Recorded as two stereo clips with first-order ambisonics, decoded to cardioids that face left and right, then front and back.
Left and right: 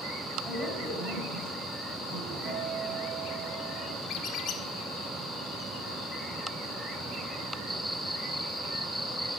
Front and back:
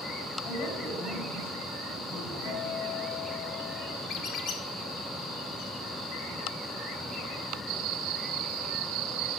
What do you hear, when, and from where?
0.5 s a woman speaking: 45° right, 5 m
2.5 s a guitar: 55° right, 3 m
4.1 s a squeak: 40° left, 1.3 m